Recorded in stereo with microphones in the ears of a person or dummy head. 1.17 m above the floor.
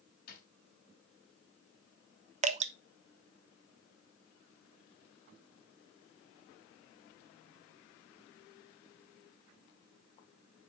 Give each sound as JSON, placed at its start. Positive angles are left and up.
{"t": 0.3, "sound": "a drawer", "side_deg": 55, "distance_m": 3.0}
{"t": 2.4, "sound": "dripping", "side_deg": -35, "distance_m": 0.6}